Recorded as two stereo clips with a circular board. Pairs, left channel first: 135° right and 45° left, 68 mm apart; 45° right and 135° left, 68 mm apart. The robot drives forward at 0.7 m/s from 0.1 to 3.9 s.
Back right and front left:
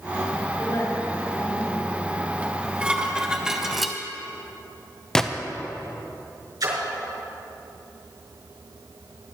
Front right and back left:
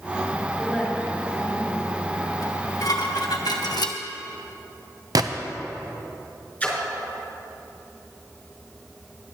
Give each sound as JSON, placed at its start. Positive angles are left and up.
{"t": 0.6, "sound": "a woman speaking", "azimuth_deg": -140, "distance_m": 4.5}
{"t": 2.4, "sound": "dishes clattering", "azimuth_deg": -20, "distance_m": 1.9}
{"t": 5.2, "sound": "a gunshot", "azimuth_deg": 145, "distance_m": 0.7}
{"t": 6.6, "sound": "a splash", "azimuth_deg": 25, "distance_m": 4.5}